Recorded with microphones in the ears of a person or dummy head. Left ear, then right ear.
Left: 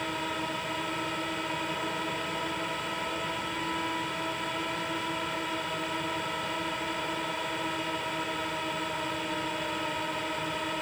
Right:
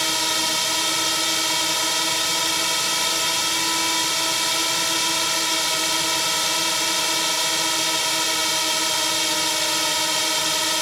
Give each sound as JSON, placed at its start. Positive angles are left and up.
{"t": 0.0, "sound": "a drone", "side_deg": -75}